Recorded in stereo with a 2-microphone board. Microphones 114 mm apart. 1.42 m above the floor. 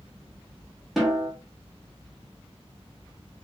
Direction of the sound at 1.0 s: Centre (ahead or behind).